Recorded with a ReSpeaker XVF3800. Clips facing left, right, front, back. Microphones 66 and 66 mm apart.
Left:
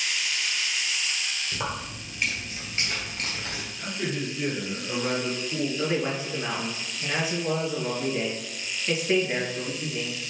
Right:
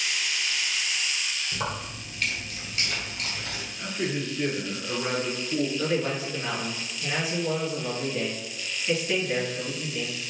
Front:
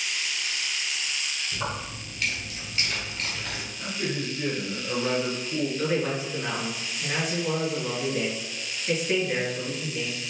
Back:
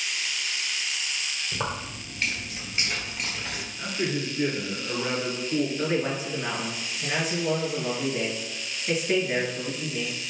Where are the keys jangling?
170° left, 1.5 m; by 3.7 s 95° left, 1.6 m.